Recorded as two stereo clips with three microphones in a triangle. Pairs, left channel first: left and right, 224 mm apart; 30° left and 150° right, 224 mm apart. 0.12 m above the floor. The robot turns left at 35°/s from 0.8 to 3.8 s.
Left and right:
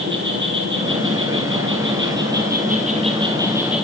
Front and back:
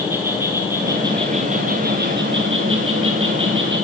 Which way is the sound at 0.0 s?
70° right.